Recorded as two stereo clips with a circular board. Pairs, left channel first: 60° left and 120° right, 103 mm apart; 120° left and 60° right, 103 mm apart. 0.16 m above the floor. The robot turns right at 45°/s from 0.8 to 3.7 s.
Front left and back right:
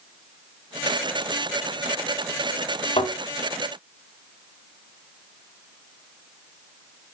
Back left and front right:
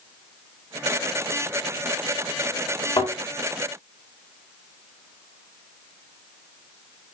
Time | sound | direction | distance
3.0 | a thud | 85° left | 4 m